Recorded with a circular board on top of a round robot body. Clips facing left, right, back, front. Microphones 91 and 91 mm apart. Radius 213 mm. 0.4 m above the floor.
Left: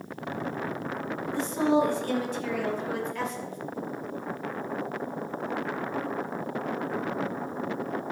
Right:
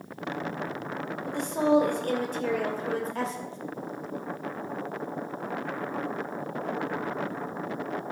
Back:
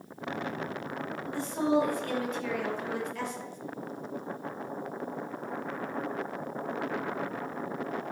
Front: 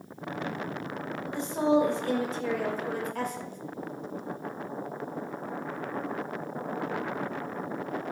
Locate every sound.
1.3 s a woman speaking: 70° right, 2.5 m; by 3.6 s 30° right, 2.5 m